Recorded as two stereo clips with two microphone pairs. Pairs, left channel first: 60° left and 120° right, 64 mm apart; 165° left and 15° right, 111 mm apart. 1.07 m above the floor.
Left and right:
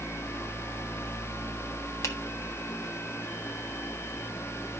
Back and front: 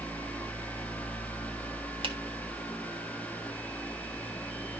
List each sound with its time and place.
2.0 s a finger snap: 20° left, 1.5 m